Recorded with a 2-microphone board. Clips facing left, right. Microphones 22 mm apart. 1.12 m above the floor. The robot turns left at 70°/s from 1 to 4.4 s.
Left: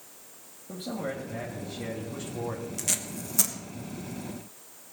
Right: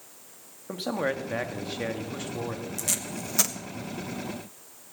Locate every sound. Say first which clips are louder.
0.7 s a man speaking: right 5 dB; 70° right, 1.7 m; by 2.7 s 170° left, 1.7 m
2.8 s tape being pulled: right 1 dB; 10° left (ahead or behind), 1.2 m; by 3.5 s 40° right (ahead or behind), 1.2 m